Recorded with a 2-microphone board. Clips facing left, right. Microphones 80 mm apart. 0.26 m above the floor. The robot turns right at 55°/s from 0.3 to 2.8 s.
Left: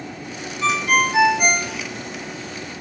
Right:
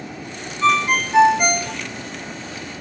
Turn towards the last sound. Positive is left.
turn(degrees=-30)